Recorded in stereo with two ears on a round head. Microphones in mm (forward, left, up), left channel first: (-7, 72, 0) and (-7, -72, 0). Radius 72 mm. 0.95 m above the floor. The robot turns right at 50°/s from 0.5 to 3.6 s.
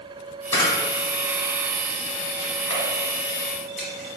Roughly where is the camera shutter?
Centre.